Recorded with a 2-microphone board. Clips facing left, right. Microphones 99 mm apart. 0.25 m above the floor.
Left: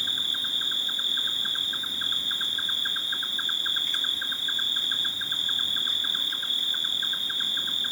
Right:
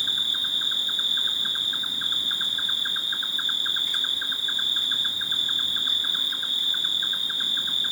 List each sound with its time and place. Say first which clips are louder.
0.0 s an insect: right 1 dB; 10° right (ahead or behind), 1.1 m